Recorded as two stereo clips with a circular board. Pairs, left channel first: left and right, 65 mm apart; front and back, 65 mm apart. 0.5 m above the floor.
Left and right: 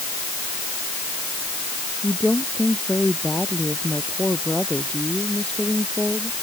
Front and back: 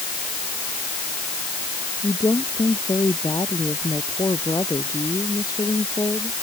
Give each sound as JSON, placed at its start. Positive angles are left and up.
{"t": 2.0, "sound": "a woman speaking", "azimuth_deg": 20}